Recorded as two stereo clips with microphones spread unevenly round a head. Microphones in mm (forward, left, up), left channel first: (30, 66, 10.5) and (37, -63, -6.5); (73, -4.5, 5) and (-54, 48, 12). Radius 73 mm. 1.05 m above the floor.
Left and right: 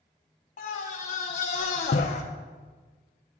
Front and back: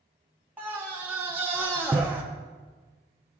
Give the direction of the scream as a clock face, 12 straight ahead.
9 o'clock.